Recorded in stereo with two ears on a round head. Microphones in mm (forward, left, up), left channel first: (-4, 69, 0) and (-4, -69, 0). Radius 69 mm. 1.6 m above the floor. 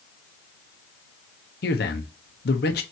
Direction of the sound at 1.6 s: 70° left (ahead or behind).